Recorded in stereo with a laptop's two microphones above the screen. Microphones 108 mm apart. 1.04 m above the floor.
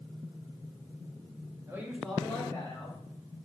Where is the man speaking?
25° right (ahead or behind), 0.8 m; by 3.0 s 30° left (ahead or behind), 1.9 m.